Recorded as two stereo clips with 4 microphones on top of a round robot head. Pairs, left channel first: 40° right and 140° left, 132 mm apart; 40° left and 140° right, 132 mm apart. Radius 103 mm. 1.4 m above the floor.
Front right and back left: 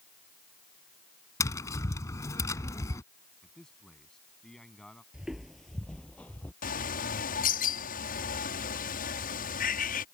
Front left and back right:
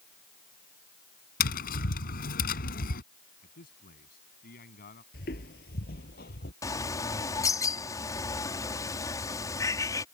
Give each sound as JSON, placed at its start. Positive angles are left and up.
{"t": 1.4, "sound": "tapping", "azimuth_deg": 25}
{"t": 3.4, "sound": "a man speaking", "azimuth_deg": 45}
{"t": 5.1, "sound": "footsteps", "azimuth_deg": 55}
{"t": 6.6, "sound": "a bird", "azimuth_deg": -25}